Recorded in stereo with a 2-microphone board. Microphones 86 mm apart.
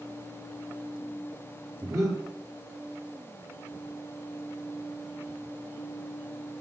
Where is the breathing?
40° right (ahead or behind), 5.5 m.